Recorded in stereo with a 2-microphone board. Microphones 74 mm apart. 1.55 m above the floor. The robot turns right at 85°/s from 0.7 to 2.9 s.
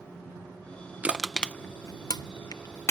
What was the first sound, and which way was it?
Crushing, 20° right (ahead or behind).